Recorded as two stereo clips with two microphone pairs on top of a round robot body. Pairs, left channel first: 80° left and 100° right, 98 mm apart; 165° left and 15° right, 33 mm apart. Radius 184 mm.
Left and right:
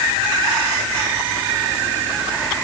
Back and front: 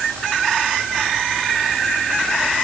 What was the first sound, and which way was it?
Only background noise.